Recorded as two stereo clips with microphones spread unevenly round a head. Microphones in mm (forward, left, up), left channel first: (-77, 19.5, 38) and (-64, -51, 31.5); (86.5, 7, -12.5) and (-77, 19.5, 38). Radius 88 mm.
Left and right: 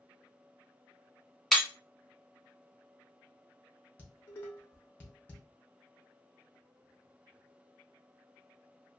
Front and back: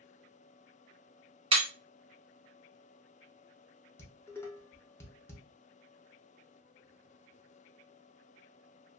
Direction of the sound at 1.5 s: Straight behind.